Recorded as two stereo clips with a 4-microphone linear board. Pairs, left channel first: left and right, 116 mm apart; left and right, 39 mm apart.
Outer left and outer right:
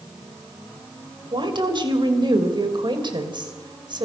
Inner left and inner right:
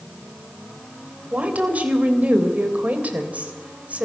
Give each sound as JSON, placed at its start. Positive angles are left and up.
{"t": 1.3, "sound": "a woman speaking", "side_deg": -40, "distance_m": 3.0}